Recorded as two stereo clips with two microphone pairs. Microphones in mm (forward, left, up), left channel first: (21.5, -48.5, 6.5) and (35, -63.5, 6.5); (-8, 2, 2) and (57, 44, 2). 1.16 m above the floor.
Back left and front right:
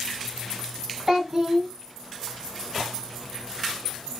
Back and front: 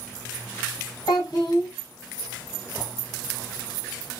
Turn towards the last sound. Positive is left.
turn(degrees=-105)